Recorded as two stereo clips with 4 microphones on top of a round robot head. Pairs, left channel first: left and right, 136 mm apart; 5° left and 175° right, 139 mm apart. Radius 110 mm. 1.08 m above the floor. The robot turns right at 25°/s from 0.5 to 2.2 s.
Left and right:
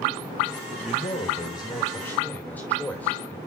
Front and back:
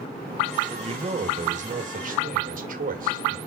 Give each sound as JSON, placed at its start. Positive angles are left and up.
{"t": 0.7, "sound": "a man speaking", "azimuth_deg": 130, "distance_m": 2.0}